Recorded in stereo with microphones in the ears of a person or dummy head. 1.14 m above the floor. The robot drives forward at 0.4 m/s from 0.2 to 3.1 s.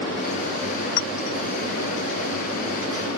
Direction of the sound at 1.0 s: 80° left.